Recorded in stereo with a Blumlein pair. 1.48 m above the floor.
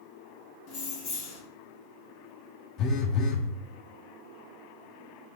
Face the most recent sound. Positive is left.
turn(degrees=30)